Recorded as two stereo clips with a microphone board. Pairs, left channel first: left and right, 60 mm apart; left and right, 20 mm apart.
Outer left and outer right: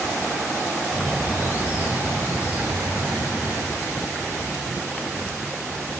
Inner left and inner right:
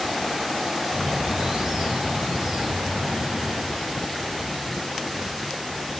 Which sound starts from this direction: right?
A bird, at 0.9 s.